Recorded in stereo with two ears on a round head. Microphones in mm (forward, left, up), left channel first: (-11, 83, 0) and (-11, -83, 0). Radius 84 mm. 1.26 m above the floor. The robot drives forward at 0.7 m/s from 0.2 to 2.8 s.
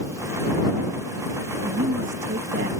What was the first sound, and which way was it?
A woman speaking, 75° right (ahead or behind).